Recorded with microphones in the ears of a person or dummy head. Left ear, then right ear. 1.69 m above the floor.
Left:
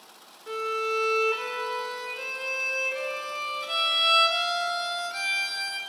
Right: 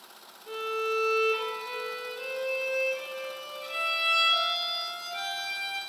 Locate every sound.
0.5 s a violin: 50° left (ahead or behind), 3 m